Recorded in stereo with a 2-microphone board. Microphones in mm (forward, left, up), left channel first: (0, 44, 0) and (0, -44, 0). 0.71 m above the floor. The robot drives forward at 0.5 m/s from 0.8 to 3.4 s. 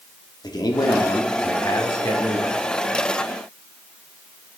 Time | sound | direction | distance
0.4 | a man speaking | 50° left (ahead or behind) | 1.1 m